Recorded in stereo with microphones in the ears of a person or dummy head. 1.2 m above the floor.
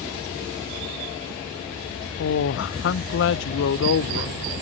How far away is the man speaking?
About 0.6 m.